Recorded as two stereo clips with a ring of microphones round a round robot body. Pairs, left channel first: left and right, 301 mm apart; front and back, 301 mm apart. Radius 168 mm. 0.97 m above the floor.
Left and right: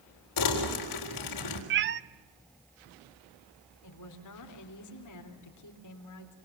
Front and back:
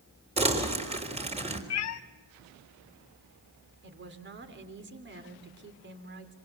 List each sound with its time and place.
0.4 s crumpling: 110° left, 4 m
1.7 s a cat meowing: 40° right, 0.6 m
3.8 s a woman speaking: 125° left, 3 m